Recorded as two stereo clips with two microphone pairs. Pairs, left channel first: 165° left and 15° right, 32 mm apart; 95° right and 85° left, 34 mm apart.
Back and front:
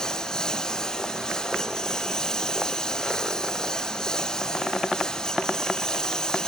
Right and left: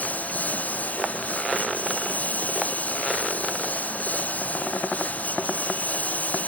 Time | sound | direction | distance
0.0 | a lawn mower | 130° right | ?